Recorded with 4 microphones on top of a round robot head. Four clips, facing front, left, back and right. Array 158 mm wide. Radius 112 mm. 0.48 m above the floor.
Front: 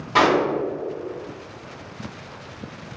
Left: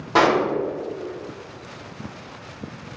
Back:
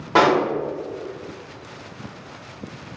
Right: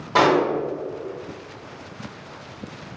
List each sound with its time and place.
0.1 s a pop: 165° left, 1.5 m